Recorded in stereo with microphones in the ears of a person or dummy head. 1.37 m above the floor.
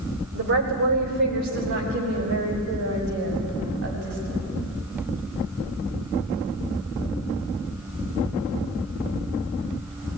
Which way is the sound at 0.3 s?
70° right (ahead or behind).